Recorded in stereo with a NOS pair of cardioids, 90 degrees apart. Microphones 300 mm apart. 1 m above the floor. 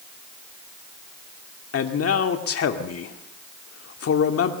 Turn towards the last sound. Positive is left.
turn(degrees=50)